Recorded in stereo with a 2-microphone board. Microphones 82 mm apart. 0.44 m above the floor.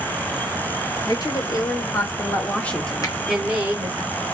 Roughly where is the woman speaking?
Left.